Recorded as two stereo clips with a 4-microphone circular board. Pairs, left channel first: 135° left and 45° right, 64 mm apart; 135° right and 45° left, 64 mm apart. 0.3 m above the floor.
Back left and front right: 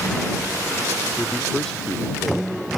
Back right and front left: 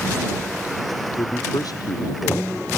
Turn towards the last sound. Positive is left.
turn(degrees=-140)